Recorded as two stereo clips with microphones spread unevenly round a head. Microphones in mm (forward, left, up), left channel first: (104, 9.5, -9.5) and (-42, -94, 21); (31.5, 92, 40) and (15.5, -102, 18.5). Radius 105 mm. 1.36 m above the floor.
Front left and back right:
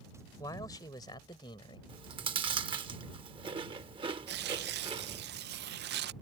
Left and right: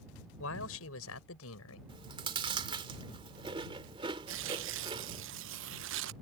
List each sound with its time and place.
0.4 s a man speaking: 110° left; by 1.8 s 105° left
1.9 s chewing: 160° right
4.3 s tearing paper: 130° right